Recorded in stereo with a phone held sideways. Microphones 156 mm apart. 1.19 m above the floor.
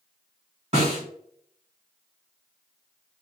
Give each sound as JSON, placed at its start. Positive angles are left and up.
{"t": 0.7, "sound": "a snare drum", "side_deg": -40, "distance_m": 1.4}